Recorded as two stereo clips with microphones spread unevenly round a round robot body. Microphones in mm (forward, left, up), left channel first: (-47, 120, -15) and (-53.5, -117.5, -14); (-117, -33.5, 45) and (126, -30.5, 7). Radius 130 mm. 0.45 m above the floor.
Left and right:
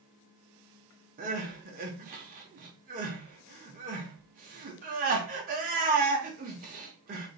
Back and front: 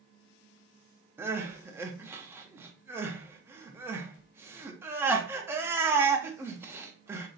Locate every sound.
1.2 s crying: 60° right, 0.6 m